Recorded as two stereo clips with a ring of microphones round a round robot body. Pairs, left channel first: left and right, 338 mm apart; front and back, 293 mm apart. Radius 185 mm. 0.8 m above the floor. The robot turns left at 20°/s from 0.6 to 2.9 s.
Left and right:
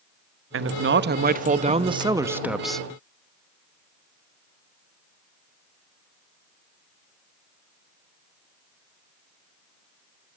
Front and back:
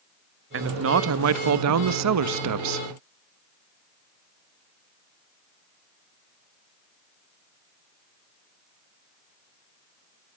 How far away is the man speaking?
About 0.9 m.